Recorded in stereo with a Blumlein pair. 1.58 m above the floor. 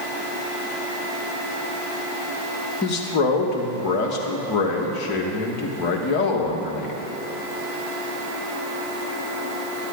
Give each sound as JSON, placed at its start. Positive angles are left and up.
{"t": 2.8, "sound": "a man speaking", "azimuth_deg": 35, "distance_m": 1.6}